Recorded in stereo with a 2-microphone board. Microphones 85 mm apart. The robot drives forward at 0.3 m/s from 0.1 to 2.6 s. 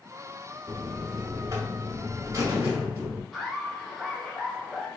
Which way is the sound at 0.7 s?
45° right (ahead or behind).